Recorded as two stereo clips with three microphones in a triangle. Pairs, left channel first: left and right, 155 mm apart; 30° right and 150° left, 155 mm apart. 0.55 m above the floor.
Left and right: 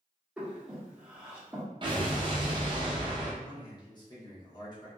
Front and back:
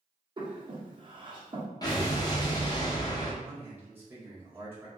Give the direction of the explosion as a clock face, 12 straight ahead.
2 o'clock.